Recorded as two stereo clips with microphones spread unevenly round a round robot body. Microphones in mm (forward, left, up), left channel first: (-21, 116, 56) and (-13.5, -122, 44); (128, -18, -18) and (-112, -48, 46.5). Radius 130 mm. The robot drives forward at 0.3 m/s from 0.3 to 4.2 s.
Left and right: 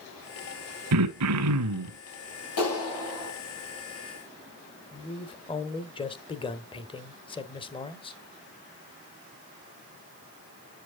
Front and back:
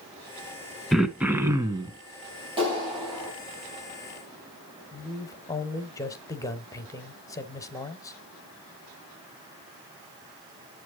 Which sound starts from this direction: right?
Throat clearing, at 0.9 s.